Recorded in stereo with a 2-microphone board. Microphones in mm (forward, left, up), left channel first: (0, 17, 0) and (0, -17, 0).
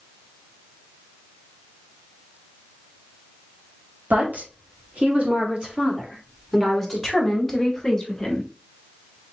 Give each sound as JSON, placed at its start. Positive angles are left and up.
{"t": 4.1, "sound": "a woman speaking", "side_deg": -50, "distance_m": 2.0}